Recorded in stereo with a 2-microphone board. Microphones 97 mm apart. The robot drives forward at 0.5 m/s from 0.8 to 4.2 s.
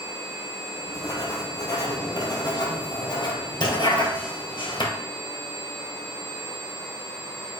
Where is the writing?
35° left (ahead or behind), 3.5 m; by 5.0 s 55° left (ahead or behind), 2.5 m.